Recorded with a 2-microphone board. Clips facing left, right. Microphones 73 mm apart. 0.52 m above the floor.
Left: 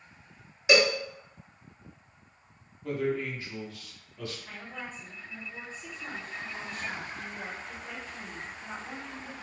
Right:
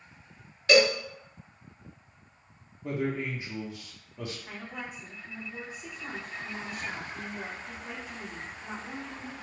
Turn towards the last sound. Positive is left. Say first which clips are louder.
# right 1 dB
turn(degrees=-10)  # may be behind; listen again after turning